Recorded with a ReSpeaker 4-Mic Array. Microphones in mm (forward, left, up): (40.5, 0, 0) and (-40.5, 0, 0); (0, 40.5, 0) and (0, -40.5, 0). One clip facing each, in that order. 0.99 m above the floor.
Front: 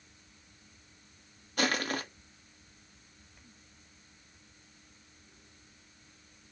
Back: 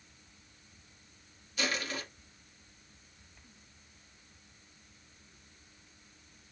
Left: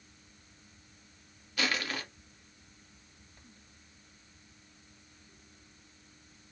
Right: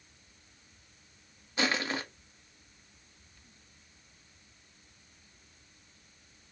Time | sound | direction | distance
1.6 | crushing | 30° right | 0.8 m